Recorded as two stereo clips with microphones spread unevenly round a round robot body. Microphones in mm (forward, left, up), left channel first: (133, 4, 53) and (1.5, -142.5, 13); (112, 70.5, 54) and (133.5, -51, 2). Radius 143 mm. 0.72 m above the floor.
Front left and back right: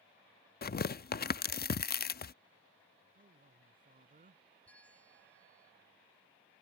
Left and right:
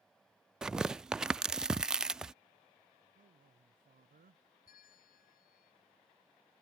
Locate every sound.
0.6 s tearing paper: straight ahead
3.1 s a man speaking: 85° right
4.7 s a bell: 135° left